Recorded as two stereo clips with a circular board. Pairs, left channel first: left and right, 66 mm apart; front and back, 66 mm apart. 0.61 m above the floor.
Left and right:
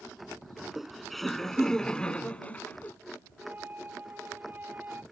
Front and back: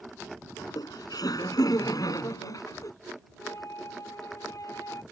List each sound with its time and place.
0.6 s laughter: 5° right; by 2.9 s 30° left
3.4 s a flute: 30° right